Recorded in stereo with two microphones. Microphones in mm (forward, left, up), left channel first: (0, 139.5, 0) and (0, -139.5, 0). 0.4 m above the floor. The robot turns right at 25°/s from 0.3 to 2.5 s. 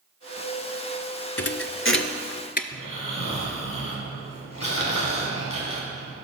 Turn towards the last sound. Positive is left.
turn(degrees=65)  # may be behind; listen again after turning